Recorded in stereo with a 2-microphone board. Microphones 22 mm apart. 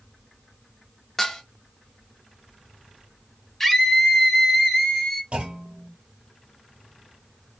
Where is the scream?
15° left (ahead or behind), 1.2 m.